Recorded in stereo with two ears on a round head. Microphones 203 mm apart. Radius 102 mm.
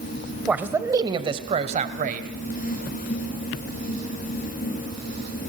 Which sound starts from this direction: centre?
A man speaking, at 0.5 s.